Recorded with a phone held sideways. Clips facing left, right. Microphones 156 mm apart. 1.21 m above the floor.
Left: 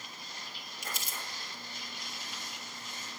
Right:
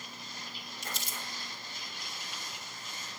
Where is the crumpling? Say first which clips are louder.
Even; 10° left (ahead or behind), 1.4 m.